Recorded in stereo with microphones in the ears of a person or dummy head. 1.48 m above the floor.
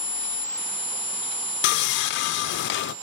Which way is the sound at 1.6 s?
55° left (ahead or behind).